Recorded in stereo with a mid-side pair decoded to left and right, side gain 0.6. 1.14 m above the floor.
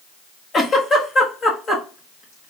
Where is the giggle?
35° left, 1.3 m.